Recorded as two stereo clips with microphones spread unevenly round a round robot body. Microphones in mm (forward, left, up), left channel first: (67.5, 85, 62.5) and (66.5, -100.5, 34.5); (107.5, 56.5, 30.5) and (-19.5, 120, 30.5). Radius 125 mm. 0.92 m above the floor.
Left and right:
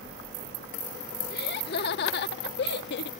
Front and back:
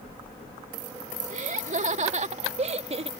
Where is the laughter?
130° left; by 3.1 s 115° left.